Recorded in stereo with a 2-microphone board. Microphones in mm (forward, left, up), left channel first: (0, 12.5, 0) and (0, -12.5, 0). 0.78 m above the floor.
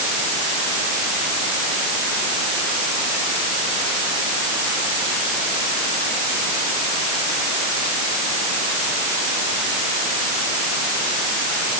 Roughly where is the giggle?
I don't hear a giggle.